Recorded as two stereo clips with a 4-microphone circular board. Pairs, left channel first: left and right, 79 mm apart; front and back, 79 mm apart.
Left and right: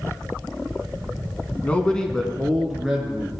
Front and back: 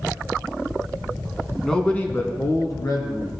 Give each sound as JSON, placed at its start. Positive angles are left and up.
{"t": 1.6, "sound": "a man speaking", "azimuth_deg": 80, "distance_m": 1.1}